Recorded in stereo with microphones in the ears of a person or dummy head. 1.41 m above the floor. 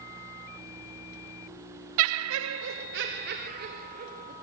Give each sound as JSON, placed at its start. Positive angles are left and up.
{"t": 2.0, "sound": "laughter", "side_deg": -80, "distance_m": 0.7}